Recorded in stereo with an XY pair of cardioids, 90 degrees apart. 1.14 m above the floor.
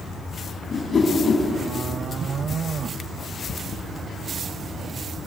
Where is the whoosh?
45° left, 5.5 m.